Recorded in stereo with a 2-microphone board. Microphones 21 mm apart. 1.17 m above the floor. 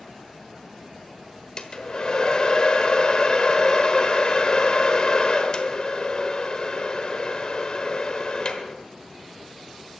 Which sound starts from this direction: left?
A hair dryer, at 1.6 s.